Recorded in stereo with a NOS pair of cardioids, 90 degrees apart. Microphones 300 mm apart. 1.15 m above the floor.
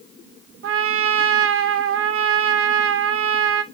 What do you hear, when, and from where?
0.6 s a trumpet: 45° right, 0.7 m